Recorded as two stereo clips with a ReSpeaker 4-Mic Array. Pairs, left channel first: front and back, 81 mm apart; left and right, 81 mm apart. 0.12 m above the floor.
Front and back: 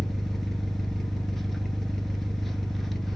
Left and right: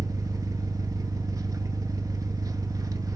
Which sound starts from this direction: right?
An engine running, at 0.0 s.